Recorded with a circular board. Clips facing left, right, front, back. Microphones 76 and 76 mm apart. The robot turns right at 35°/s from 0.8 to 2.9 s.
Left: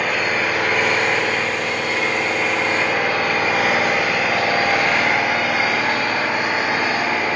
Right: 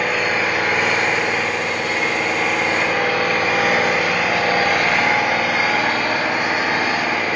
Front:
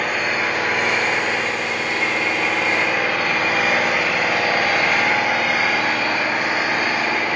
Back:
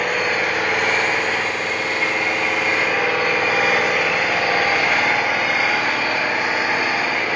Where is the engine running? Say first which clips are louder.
Right 1 dB, back 1 dB; 160° right, 1.1 m; by 7.4 s 90° right, 1.1 m.